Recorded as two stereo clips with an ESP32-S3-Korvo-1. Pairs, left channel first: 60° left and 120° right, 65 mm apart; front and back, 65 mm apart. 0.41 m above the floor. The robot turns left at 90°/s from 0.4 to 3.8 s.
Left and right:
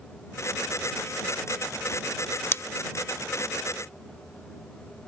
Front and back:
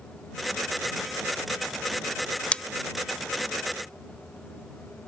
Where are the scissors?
60° left; by 2.6 s 50° left.